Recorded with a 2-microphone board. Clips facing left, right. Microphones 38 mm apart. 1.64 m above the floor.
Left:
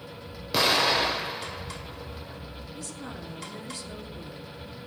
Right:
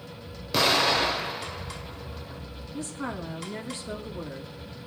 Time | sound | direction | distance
0.5 | an explosion | 5° left (ahead or behind) | 1.4 m
2.7 | a woman speaking | 45° right (ahead or behind) | 3.5 m